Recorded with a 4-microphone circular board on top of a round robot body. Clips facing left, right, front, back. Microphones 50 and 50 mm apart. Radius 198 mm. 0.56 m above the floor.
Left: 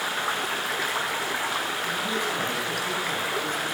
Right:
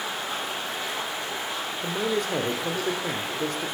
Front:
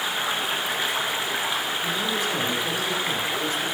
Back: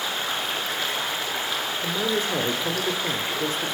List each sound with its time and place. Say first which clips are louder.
0.0 s running water: left 3 dB, front 2 dB; 75° left, 1.8 m
1.8 s a man speaking: right 1 dB, back 1 dB; 125° right, 2.0 m